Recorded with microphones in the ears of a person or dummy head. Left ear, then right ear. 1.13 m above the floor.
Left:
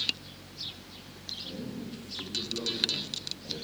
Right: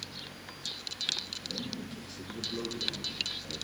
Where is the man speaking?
60° right (ahead or behind), 2 m; by 3.6 s 5° right (ahead or behind), 1.1 m.